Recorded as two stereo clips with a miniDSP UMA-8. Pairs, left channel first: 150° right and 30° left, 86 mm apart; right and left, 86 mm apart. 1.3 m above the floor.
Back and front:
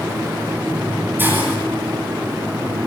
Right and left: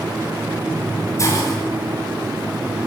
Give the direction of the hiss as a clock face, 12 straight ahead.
1 o'clock.